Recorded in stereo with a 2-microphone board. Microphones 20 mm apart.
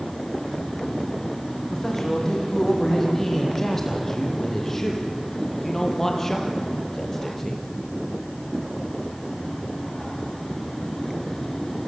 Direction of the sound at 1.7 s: 20° left (ahead or behind).